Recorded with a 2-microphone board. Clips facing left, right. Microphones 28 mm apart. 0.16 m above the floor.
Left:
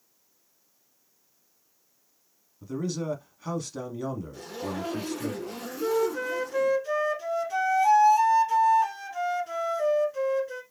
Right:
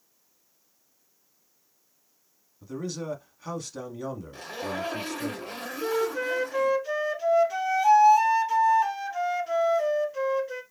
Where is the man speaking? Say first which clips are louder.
Left 3 dB; 5° left (ahead or behind), 1.1 m.